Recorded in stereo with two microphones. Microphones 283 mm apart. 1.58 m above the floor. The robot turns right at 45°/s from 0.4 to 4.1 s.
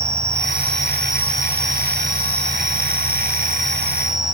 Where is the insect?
150° left, 4.5 m; by 4.3 s 45° right, 4.5 m.